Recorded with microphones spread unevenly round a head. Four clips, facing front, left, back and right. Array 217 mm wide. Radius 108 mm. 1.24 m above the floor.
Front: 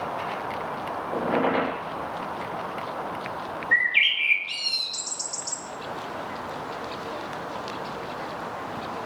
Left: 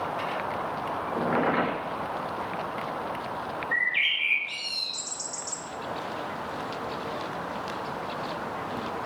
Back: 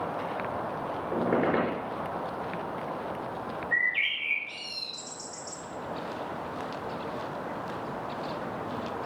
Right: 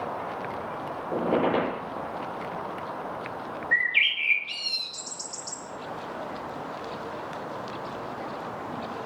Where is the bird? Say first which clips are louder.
Right 2 dB, front 8 dB; 20° right, 1.9 m.